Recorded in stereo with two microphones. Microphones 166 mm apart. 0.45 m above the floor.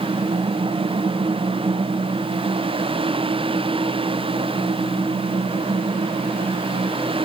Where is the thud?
I don't hear a thud.